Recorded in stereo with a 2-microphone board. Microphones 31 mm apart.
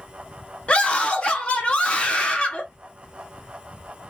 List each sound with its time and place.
0.7 s a scream: 40° left (ahead or behind), 0.7 m